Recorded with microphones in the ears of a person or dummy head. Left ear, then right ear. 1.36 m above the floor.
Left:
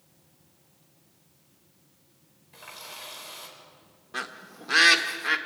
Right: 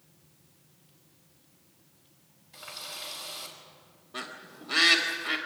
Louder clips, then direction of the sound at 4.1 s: Left 4 dB; 55° left (ahead or behind).